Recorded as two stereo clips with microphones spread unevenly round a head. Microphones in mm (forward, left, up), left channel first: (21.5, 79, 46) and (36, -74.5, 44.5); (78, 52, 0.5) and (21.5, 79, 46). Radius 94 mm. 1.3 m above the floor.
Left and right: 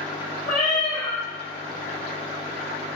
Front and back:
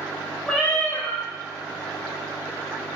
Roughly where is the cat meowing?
Ahead left.